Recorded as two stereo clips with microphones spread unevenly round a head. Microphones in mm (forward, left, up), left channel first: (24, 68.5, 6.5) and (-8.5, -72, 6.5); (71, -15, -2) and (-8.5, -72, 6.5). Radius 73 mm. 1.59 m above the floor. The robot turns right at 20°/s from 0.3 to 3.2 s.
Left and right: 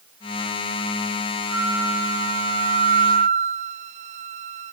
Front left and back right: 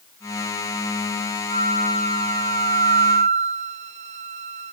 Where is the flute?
175° left, 0.8 m; by 4.7 s 150° right, 0.8 m.